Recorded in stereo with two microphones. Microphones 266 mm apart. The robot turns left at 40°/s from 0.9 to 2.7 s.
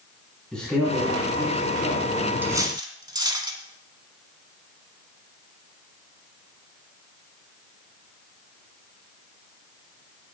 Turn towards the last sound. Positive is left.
turn(degrees=-15)  # may be behind; listen again after turning